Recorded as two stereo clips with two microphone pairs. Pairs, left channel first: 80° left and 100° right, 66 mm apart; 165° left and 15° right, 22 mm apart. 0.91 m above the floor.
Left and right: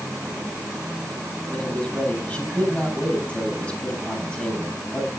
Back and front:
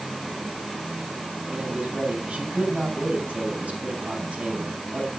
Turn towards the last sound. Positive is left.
turn(degrees=10)